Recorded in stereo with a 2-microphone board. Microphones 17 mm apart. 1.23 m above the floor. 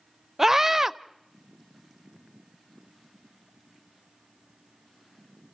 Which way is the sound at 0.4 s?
25° right (ahead or behind).